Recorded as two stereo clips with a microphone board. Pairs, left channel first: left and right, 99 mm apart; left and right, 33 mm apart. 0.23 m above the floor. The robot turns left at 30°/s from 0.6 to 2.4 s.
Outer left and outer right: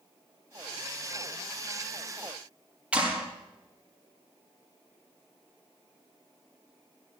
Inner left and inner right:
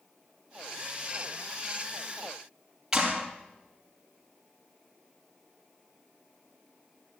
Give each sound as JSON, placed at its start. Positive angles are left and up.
{"t": 2.9, "sound": "a clap", "side_deg": -10, "distance_m": 4.5}